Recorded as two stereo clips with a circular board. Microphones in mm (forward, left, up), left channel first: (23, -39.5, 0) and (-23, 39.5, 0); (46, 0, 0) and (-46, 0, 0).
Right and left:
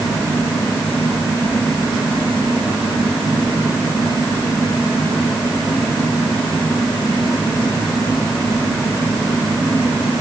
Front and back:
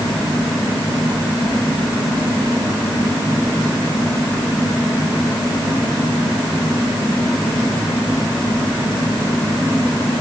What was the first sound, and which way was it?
Only background noise.